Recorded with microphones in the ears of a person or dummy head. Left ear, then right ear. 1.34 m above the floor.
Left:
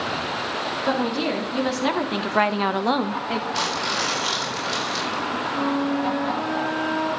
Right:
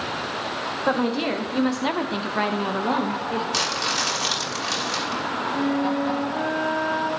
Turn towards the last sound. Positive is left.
turn(degrees=-70)  # may be behind; listen again after turning